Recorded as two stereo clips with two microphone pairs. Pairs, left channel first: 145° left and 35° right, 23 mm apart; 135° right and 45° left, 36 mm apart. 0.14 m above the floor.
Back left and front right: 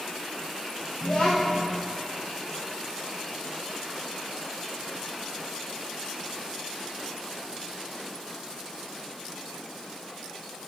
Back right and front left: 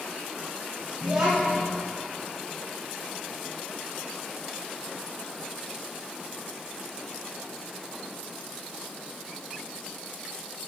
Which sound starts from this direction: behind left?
A child speaking, at 1.0 s.